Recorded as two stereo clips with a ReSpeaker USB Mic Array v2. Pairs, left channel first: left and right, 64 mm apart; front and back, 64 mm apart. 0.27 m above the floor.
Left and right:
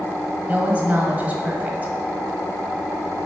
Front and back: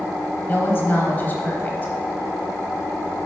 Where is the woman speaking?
40° right, 1.1 m.